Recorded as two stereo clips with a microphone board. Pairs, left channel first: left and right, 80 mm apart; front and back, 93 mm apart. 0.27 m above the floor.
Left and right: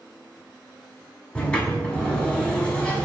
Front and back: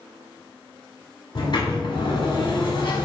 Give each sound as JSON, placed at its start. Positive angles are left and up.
{"t": 1.4, "sound": "a sliding door", "azimuth_deg": 15, "distance_m": 1.0}